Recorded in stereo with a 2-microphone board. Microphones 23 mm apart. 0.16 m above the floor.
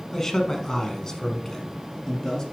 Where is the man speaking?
20° left (ahead or behind), 1.3 m; by 2.4 s 25° left (ahead or behind), 1.6 m.